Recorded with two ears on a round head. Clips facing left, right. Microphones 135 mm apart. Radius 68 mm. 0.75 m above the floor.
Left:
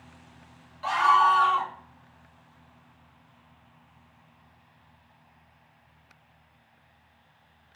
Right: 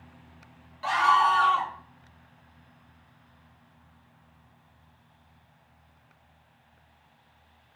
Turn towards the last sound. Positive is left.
turn(degrees=0)  # may be behind; listen again after turning